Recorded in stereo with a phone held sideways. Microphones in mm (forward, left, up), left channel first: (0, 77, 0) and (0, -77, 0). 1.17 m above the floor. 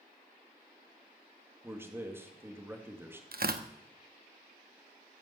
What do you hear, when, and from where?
1.6 s a man speaking: 15° right (ahead or behind), 2.5 m
3.3 s tearing paper: 70° right (ahead or behind), 1.0 m